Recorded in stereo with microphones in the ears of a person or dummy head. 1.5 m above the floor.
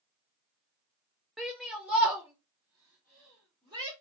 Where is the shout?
5° left (ahead or behind), 0.8 m; by 3.9 s 15° right (ahead or behind), 2.5 m.